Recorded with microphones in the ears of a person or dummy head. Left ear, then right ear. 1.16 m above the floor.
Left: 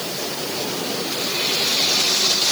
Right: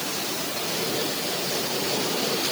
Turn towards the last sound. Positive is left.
No sound to turn to.